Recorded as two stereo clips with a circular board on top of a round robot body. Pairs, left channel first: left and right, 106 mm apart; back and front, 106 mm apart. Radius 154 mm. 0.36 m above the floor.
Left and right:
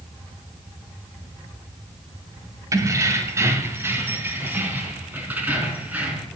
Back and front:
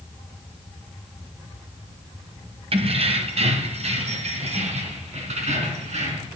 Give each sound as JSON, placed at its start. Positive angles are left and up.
{"t": 2.7, "sound": "keys jangling", "azimuth_deg": -30, "distance_m": 1.8}